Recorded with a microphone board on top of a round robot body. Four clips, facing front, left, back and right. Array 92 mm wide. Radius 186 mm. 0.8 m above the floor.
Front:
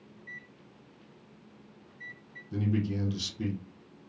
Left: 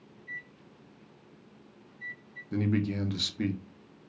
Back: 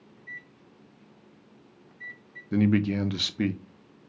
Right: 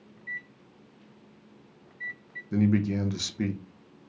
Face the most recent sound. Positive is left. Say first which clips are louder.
# right 4 dB, back 8 dB
turn(degrees=-165)